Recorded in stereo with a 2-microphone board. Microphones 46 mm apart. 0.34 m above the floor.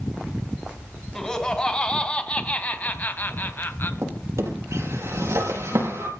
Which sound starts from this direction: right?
A drawer, at 4.0 s.